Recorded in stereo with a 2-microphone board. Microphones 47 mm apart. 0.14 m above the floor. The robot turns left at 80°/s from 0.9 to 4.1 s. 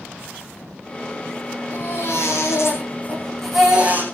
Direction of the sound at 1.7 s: 145° left.